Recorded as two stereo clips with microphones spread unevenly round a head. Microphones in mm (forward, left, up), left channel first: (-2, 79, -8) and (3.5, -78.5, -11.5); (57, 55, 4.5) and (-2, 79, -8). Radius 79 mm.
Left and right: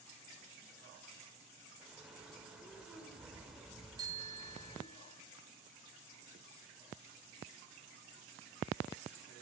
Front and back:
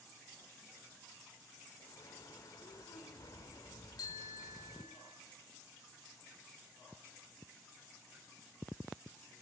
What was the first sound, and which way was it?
A bird, straight ahead.